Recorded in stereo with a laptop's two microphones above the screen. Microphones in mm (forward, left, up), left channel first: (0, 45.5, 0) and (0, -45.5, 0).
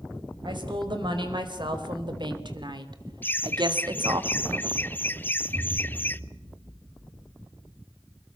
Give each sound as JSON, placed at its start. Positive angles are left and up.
{"t": 0.5, "sound": "a woman speaking", "side_deg": -60, "distance_m": 5.0}
{"t": 3.2, "sound": "laughter", "side_deg": 20, "distance_m": 0.9}
{"t": 5.5, "sound": "an explosion", "side_deg": -55, "distance_m": 8.0}